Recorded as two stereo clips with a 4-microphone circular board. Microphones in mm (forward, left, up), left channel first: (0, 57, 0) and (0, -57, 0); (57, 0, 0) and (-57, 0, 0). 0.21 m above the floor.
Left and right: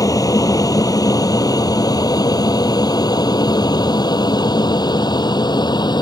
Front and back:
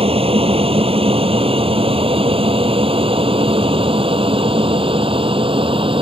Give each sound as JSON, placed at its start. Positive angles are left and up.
{"t": 0.0, "sound": "an aircraft", "azimuth_deg": 150}